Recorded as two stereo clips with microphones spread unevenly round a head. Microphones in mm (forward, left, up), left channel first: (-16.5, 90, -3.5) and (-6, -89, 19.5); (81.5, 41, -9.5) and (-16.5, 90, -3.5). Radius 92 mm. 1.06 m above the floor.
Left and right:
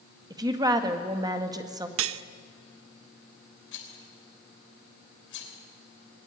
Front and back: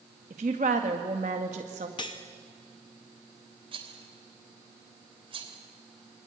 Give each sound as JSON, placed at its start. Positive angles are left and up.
{"t": 0.3, "sound": "a woman speaking", "azimuth_deg": -160, "distance_m": 1.6}
{"t": 2.0, "sound": "cutlery clinking", "azimuth_deg": -90, "distance_m": 0.6}
{"t": 3.7, "sound": "a rattle", "azimuth_deg": 115, "distance_m": 3.0}